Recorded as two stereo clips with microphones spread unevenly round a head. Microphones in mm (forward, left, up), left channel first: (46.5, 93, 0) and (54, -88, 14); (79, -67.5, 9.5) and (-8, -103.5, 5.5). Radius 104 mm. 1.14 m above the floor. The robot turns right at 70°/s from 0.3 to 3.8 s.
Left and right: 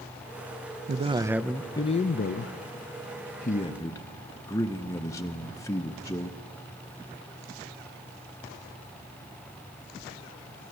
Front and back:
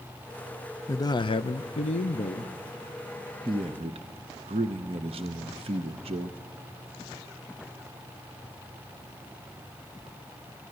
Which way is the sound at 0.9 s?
40° right.